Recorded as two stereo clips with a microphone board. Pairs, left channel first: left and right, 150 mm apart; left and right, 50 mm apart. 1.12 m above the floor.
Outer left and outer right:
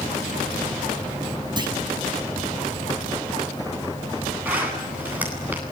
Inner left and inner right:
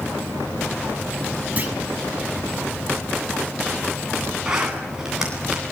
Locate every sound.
1.6 s a clunk: 30° right (ahead or behind), 6.5 m
4.5 s a zipper: 10° right (ahead or behind), 9.5 m